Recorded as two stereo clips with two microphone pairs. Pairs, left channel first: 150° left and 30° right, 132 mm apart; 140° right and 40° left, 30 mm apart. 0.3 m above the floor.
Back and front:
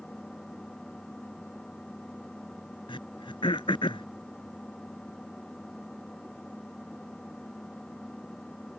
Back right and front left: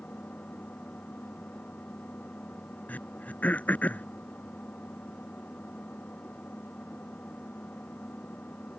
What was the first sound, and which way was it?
An engine running, 125° right.